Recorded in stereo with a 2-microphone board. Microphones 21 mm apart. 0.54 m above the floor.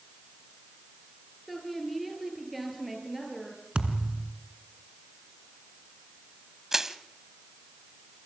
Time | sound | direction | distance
1.5 | a woman speaking | 5° left (ahead or behind) | 9 m
3.8 | a thud | 60° right (ahead or behind) | 2.0 m
6.7 | crushing | 20° right (ahead or behind) | 1.2 m